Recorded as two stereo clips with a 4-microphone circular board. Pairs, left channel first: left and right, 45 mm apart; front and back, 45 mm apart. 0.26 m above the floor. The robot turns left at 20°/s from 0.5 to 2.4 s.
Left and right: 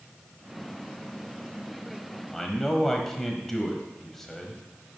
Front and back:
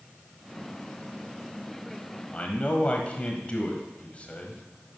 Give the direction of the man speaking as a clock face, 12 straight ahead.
12 o'clock.